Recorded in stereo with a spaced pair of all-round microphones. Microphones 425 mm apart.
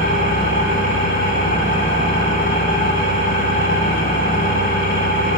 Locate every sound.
0.0 s an engine running: 20° left (ahead or behind), 3 m